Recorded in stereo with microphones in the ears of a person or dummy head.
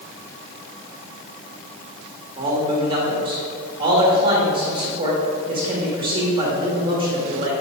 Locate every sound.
2.4 s a man speaking: 25° right (ahead or behind), 1.5 m